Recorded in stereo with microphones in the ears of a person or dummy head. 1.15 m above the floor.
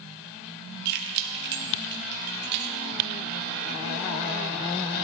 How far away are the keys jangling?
About 1.3 m.